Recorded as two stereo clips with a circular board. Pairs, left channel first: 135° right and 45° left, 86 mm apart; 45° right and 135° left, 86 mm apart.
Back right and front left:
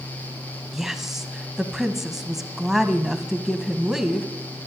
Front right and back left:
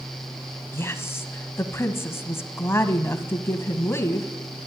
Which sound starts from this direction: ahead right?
A woman speaking, at 0.7 s.